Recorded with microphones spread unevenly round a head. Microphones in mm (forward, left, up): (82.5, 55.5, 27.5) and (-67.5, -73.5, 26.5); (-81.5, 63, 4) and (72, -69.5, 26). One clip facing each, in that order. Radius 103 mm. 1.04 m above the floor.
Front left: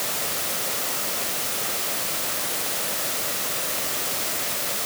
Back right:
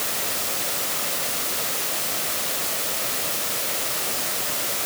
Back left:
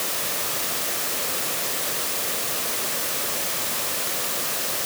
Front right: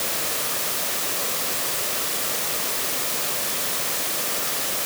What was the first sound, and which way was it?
Only background noise.